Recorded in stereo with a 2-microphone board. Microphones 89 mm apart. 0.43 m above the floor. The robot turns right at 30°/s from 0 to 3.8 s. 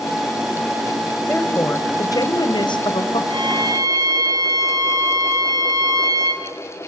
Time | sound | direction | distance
1.3 | a woman speaking | 25° left | 2 m
3.3 | a violin | 55° right (ahead or behind) | 2.0 m